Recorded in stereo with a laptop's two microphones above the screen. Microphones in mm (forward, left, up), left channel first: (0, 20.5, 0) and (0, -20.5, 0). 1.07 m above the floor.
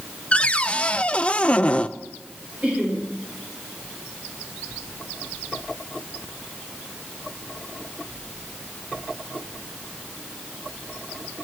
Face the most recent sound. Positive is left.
turn(degrees=-35)  # may be behind; listen again after turning